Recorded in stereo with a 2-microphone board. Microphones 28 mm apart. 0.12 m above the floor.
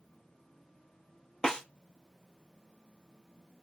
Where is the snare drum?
25° left (ahead or behind), 1.1 m.